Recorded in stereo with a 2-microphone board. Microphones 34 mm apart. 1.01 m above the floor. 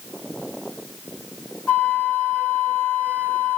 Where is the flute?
60° left (ahead or behind), 7 m.